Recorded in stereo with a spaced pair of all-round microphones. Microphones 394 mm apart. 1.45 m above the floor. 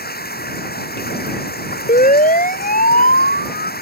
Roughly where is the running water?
Left.